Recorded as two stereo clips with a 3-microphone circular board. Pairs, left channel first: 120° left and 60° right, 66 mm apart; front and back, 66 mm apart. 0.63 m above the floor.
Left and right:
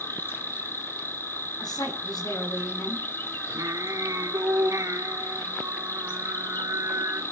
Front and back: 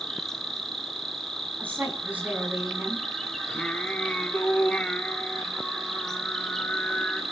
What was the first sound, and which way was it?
An insect, 80° left.